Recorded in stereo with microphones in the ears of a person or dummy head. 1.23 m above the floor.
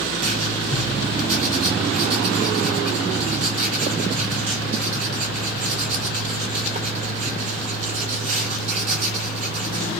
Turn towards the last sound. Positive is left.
turn(degrees=-35)  # may be behind; listen again after turning